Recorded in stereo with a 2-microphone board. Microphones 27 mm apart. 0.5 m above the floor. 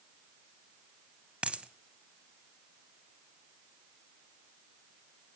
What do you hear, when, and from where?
1.4 s a dropped coin: 50° right (ahead or behind), 0.7 m